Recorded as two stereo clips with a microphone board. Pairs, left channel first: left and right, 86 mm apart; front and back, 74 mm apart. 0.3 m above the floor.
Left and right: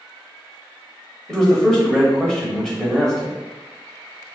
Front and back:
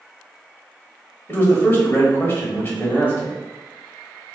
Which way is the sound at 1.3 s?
15° left.